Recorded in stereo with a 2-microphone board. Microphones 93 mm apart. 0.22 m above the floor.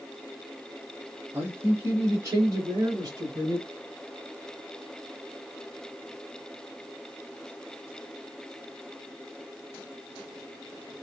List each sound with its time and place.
1.3 s a man speaking: 25° right (ahead or behind), 4 m; by 3.7 s 50° right (ahead or behind), 2 m